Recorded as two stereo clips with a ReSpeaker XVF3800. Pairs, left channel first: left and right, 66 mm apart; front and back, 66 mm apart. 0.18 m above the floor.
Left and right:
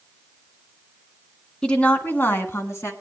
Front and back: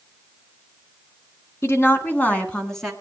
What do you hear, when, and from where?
1.6 s a woman speaking: 15° left, 1.5 m; by 2.9 s 85° left, 1.6 m